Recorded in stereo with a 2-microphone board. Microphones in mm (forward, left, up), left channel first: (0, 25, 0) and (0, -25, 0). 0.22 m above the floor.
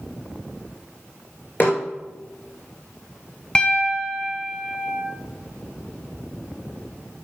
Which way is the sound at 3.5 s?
15° left (ahead or behind).